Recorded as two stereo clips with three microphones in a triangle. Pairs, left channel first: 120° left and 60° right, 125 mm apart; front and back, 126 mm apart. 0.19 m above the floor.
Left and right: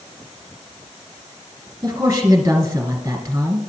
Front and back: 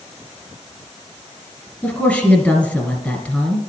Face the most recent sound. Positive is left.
turn(degrees=-60)